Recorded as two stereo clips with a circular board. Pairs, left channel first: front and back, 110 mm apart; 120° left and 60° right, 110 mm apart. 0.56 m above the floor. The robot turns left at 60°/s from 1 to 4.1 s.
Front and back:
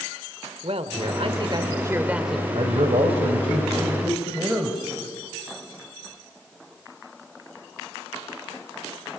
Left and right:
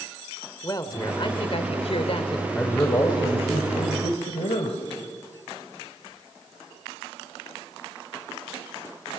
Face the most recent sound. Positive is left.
turn(degrees=105)